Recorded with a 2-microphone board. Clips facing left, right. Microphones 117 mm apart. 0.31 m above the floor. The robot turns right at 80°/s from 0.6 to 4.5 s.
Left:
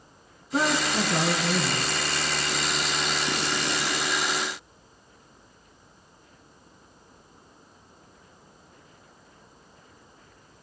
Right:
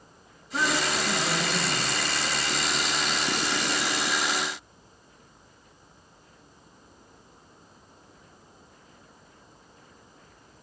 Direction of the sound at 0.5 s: 30° left.